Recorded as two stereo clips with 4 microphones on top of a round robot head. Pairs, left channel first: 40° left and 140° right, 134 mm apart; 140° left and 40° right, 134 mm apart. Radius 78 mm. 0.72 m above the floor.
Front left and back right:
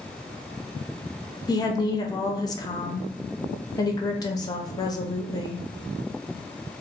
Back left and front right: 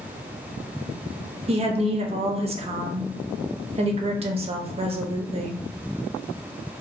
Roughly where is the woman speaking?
Ahead.